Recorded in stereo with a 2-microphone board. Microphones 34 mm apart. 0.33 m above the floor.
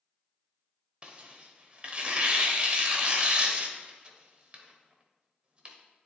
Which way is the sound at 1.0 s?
35° right (ahead or behind).